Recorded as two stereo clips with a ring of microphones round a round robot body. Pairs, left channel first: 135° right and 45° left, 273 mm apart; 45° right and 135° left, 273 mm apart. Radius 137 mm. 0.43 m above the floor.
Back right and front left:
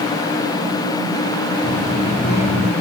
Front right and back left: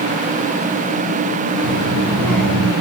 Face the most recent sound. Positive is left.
turn(degrees=155)